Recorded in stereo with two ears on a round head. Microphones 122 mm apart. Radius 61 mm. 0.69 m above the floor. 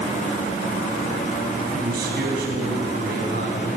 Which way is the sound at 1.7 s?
80° right.